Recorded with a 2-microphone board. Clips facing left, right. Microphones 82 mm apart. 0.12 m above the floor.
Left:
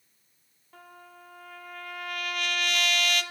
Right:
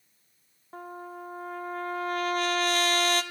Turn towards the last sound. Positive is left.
turn(degrees=-35)  # may be behind; listen again after turning